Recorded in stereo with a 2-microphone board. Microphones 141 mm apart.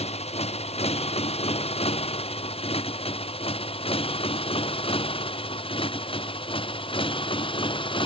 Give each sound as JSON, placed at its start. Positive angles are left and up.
{"t": 0.0, "sound": "a motorcycle", "side_deg": 50}